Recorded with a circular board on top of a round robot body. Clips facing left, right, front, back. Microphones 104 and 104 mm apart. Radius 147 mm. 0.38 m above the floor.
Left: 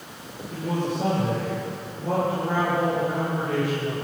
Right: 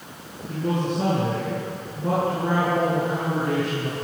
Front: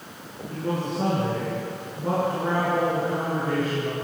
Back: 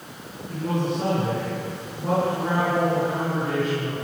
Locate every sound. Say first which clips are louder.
0.5 s a man speaking: right 2 dB, back 2 dB; 85° right, 8 m